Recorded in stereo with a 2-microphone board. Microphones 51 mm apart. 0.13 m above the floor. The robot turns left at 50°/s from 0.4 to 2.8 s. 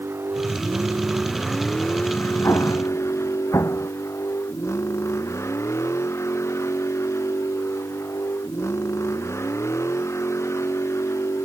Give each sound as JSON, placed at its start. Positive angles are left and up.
{"t": 0.0, "sound": "a vehicle", "azimuth_deg": -130}
{"t": 2.4, "sound": "an explosion", "side_deg": 65}